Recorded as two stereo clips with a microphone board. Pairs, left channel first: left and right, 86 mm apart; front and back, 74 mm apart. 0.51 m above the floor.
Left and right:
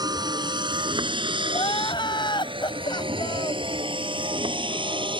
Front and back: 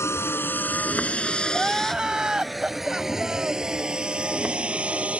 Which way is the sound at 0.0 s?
55° right.